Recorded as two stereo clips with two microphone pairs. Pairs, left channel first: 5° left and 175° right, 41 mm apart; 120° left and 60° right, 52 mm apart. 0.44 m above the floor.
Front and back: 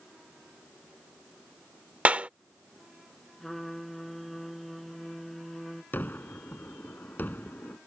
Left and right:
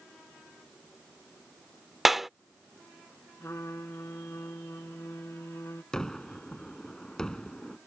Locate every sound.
2.0 s a clap: 145° right
3.4 s a trumpet: 90° left
5.9 s a gunshot: 45° left